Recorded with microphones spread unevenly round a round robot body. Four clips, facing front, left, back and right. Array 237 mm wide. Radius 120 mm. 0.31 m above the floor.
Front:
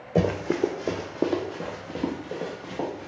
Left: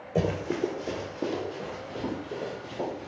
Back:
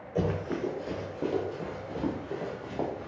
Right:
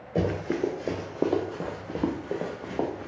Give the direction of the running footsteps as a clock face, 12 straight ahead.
12 o'clock.